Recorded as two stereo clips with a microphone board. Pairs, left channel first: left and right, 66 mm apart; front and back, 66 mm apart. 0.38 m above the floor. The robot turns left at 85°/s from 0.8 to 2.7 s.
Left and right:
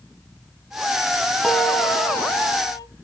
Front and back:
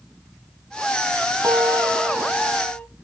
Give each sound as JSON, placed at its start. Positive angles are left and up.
{"t": 1.4, "sound": "a piano", "azimuth_deg": 175, "distance_m": 0.9}